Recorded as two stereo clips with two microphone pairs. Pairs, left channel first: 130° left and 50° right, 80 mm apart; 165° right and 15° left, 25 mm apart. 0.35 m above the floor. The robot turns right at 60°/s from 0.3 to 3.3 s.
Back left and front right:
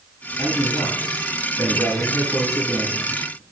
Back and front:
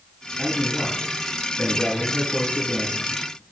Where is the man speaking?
95° left, 2 m; by 3.4 s 90° right, 2 m.